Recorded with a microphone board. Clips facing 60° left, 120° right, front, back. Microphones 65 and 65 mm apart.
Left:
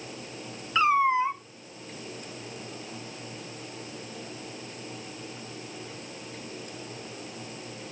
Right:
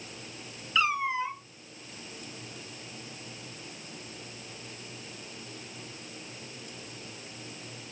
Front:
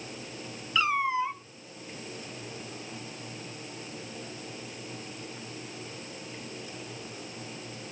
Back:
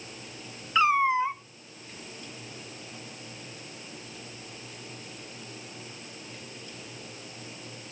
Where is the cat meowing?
120° left, 0.9 m.